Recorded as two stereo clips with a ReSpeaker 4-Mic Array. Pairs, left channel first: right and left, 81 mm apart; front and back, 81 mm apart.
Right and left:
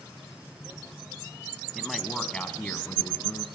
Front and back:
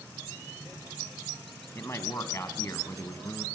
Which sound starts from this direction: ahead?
A man speaking, at 1.8 s.